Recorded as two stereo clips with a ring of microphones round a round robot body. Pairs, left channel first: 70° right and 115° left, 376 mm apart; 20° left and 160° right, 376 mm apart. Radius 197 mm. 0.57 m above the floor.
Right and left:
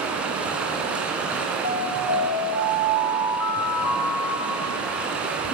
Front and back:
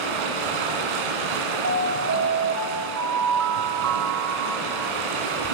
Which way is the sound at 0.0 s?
160° right.